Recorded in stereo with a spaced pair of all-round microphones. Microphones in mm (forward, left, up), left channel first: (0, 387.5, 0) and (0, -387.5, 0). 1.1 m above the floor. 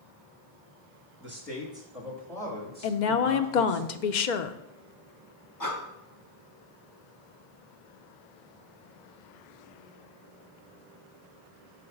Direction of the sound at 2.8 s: 70° left (ahead or behind).